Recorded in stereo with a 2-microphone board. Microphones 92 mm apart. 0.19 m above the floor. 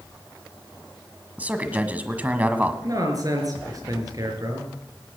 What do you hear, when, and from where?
1.4 s a man speaking: 15° right (ahead or behind), 1.3 m
2.8 s a man speaking: 45° right (ahead or behind), 4 m